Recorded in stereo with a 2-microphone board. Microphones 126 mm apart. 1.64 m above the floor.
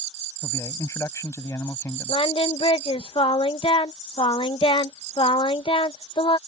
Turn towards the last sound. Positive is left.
turn(degrees=45)  # may be behind; listen again after turning